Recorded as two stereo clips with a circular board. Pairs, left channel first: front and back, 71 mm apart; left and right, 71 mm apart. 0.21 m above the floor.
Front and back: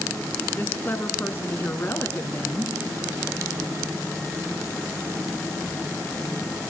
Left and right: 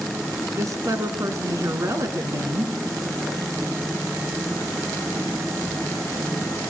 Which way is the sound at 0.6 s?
55° right.